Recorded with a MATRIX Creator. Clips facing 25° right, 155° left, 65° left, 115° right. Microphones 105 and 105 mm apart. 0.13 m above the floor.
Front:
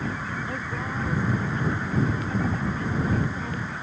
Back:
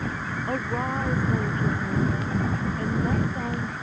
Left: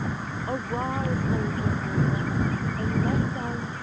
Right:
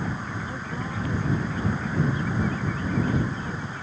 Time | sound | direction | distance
0.5 | a woman speaking | 110° left | ?